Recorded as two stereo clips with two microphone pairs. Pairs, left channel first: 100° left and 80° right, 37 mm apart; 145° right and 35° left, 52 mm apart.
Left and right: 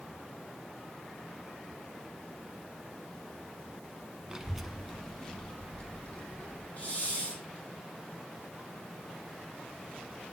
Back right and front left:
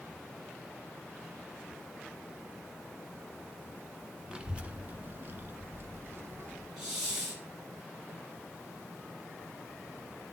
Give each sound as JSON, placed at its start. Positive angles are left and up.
{"t": 4.3, "sound": "a child speaking", "azimuth_deg": -25, "distance_m": 0.8}
{"t": 6.8, "sound": "a hiss", "azimuth_deg": 115, "distance_m": 2.5}